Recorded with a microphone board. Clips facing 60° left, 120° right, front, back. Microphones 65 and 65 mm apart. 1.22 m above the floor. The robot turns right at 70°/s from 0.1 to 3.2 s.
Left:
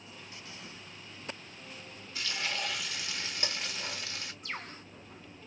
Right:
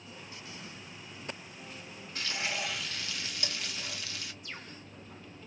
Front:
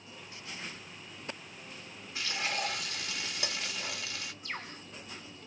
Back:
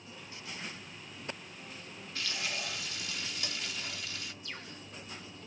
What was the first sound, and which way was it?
Frying, 75° right.